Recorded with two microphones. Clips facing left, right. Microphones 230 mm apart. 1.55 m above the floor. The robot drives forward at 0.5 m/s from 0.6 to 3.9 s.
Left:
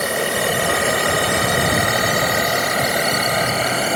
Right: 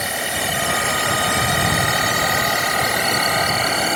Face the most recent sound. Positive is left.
turn(degrees=45)  # may be behind; listen again after turning